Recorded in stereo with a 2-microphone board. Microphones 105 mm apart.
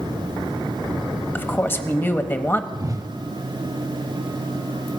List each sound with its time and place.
1.4 s a woman speaking: 20° left (ahead or behind), 0.9 m
2.7 s a whoosh: 35° right (ahead or behind), 0.5 m